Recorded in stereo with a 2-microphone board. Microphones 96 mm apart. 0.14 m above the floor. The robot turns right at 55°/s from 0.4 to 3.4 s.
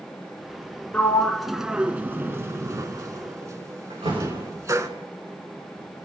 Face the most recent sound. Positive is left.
turn(degrees=-85)